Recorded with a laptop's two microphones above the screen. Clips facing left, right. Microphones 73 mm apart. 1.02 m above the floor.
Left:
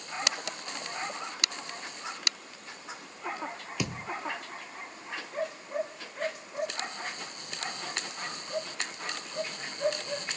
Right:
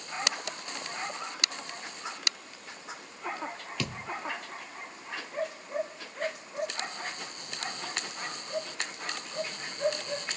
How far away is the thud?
About 1.0 m.